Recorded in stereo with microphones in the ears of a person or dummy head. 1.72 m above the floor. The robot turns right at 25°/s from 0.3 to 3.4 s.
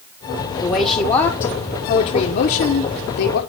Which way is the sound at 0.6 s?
20° left.